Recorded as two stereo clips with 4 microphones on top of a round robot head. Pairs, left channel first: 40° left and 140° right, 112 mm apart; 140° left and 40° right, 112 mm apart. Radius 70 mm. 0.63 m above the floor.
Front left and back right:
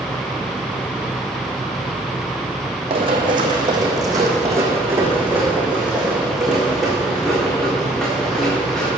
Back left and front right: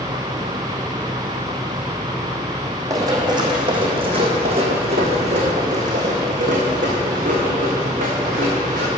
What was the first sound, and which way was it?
Running footsteps, 100° right.